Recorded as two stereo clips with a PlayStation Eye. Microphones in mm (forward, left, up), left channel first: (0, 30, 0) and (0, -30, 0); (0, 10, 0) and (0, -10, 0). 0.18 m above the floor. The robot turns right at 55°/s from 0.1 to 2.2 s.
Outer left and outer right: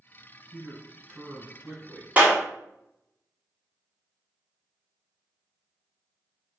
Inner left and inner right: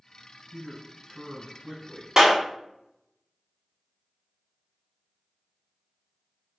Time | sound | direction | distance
0.5 | a man speaking | 100° right | 1.5 m
2.2 | a clap | 30° right (ahead or behind) | 0.9 m